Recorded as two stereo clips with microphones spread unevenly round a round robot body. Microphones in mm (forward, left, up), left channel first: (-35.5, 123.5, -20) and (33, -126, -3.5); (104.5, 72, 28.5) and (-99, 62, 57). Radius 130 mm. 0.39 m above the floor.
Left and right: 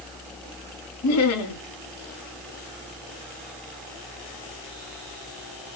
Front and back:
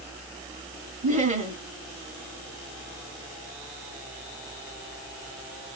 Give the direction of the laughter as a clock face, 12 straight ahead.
8 o'clock.